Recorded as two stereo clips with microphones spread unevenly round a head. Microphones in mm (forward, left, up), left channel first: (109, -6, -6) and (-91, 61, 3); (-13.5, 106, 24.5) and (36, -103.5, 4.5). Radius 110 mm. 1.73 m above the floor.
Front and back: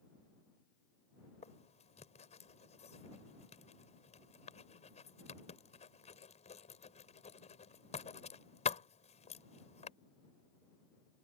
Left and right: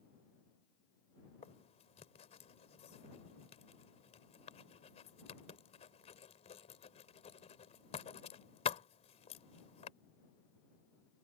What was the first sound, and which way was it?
Writing, 40° left.